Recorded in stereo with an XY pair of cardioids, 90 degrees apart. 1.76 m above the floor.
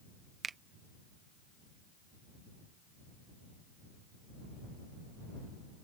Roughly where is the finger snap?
Ahead right.